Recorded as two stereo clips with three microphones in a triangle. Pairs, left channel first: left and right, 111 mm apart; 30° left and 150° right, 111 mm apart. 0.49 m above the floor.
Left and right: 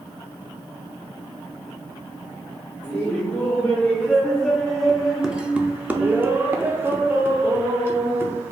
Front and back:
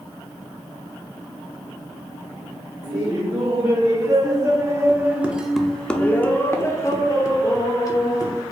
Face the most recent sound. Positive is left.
turn(degrees=-20)